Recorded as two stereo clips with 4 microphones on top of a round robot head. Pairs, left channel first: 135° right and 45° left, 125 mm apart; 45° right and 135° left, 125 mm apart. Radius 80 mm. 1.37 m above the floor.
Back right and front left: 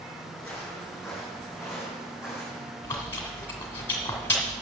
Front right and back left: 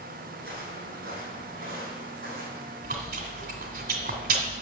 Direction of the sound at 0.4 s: 140° left.